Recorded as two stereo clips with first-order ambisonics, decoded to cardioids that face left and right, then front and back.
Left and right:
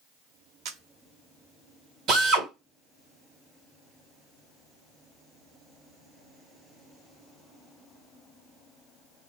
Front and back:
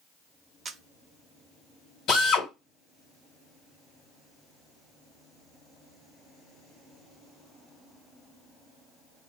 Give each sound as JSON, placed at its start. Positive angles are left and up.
{"t": 0.7, "sound": "a camera shutter", "azimuth_deg": -115, "distance_m": 0.6}
{"t": 2.1, "sound": "a drill", "azimuth_deg": -45, "distance_m": 1.8}